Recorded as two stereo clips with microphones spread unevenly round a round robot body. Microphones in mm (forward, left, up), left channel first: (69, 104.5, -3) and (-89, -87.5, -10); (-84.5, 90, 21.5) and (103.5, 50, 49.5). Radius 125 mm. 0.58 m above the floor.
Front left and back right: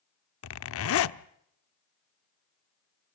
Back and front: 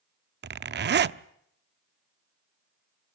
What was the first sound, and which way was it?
A zipper, 20° left.